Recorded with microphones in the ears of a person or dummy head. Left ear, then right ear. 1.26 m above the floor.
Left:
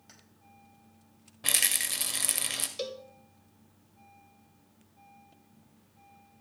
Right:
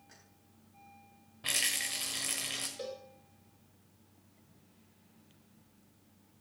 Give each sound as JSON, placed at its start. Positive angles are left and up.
{"t": 0.1, "sound": "keys jangling", "side_deg": 50, "distance_m": 4.5}
{"t": 1.4, "sound": "a rattle", "side_deg": 20, "distance_m": 1.3}
{"t": 2.8, "sound": "a cowbell", "side_deg": 45, "distance_m": 1.1}